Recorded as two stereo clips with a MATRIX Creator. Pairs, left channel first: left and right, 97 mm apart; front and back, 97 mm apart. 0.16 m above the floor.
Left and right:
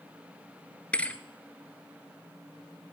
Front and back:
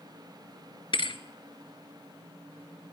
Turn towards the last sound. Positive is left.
turn(degrees=15)